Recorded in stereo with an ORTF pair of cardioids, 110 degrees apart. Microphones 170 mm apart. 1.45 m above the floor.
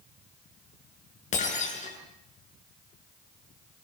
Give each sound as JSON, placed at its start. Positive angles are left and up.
{"t": 1.3, "sound": "breaking glass", "azimuth_deg": 45, "distance_m": 8.0}